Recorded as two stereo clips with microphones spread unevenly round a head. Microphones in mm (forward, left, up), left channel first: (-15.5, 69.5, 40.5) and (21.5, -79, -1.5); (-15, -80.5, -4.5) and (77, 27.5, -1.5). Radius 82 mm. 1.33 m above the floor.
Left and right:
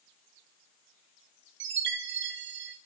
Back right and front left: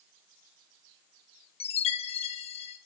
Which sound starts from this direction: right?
A chime, at 1.6 s.